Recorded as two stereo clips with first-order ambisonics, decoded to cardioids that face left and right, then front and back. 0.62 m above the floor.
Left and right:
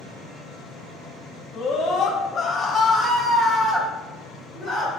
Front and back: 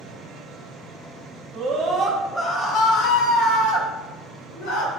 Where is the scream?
135° left, 0.7 m; by 4.9 s 10° right, 1.7 m.